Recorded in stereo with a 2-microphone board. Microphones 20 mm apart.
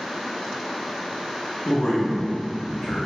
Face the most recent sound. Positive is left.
turn(degrees=45)  # may be behind; listen again after turning